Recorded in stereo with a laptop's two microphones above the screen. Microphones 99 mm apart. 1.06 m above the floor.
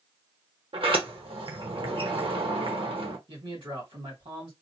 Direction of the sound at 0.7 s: 70° right (ahead or behind).